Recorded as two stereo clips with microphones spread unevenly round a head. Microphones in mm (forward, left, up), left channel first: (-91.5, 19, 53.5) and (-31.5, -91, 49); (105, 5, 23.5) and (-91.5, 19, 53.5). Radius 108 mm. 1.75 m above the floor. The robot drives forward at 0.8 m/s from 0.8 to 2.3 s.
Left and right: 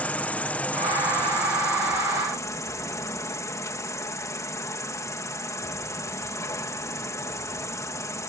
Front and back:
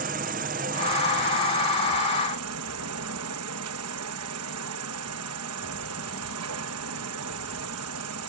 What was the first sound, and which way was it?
An insect, 170° right.